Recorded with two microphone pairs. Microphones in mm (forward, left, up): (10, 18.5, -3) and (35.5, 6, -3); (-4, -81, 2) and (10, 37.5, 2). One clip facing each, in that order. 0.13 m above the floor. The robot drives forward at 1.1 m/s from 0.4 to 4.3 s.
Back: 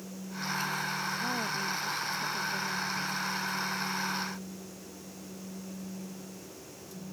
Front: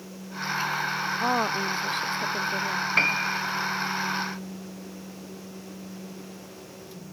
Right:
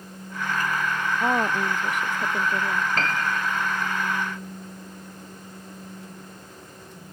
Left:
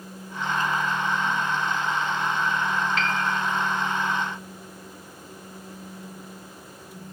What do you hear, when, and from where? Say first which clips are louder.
1.2 s a woman speaking: front 7 dB, right 3 dB; 75° right; by 2.9 s 80° right
3.0 s a piano: front 10 dB, even; 45° right